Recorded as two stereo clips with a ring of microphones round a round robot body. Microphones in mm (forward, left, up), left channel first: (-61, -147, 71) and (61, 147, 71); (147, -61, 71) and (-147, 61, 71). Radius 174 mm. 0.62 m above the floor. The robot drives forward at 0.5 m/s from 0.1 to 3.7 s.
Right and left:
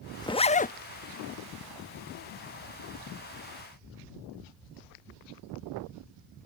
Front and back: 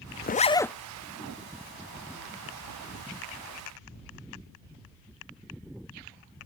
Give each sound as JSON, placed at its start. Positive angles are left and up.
{"t": 0.2, "sound": "a zipper", "azimuth_deg": -45}